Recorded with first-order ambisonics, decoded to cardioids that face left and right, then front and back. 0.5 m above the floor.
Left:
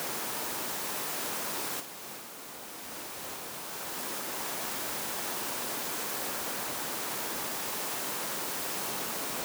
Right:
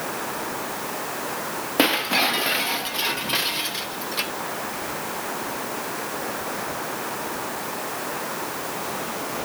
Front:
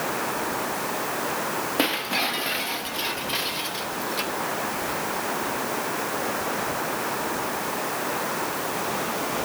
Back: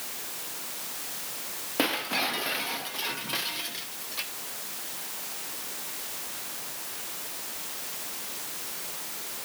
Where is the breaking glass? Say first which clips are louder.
Right 25 dB, front 2 dB; 80° right.